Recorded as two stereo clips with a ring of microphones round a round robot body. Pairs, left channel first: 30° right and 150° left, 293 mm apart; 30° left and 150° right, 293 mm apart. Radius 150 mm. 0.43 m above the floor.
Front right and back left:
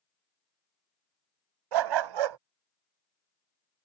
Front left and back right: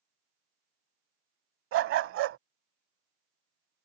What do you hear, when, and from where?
1.7 s a dog barking: 160° left